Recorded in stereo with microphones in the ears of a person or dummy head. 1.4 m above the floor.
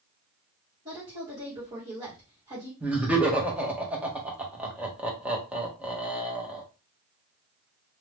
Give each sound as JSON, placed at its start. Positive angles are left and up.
{"t": 0.8, "sound": "a woman speaking", "side_deg": -25, "distance_m": 1.2}
{"t": 2.8, "sound": "laughter", "side_deg": -5, "distance_m": 0.9}